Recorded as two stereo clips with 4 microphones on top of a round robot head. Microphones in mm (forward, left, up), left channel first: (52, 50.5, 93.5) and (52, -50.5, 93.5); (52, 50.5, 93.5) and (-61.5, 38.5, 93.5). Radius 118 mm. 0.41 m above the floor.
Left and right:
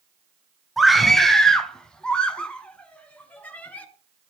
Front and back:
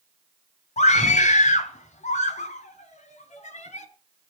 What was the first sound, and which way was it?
A scream, straight ahead.